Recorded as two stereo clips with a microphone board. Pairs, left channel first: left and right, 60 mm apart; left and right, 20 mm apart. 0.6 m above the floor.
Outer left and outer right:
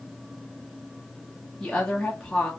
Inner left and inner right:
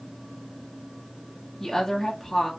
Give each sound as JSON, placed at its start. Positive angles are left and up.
{"t": 1.6, "sound": "a woman speaking", "side_deg": 10, "distance_m": 0.9}